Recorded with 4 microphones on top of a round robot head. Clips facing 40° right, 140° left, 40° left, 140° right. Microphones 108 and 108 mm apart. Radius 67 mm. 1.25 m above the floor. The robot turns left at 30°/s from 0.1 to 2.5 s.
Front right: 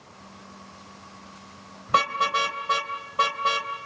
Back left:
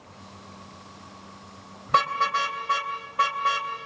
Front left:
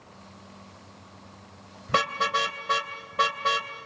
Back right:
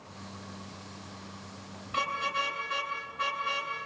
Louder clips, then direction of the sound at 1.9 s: Even, front left 7 dB; 45° left.